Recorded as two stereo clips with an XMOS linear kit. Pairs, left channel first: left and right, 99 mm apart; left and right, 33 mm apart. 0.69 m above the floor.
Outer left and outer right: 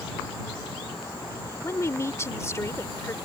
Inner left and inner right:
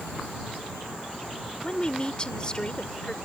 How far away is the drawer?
No drawer in this recording.